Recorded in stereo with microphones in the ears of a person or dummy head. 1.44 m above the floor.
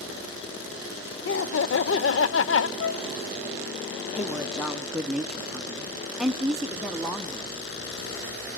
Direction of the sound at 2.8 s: 80° left.